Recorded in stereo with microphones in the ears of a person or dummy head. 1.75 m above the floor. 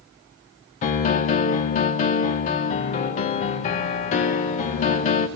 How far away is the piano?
About 1.1 m.